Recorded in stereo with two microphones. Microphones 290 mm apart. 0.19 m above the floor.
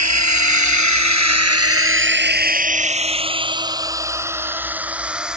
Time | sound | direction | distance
0.0 | a drone | 60° right (ahead or behind) | ?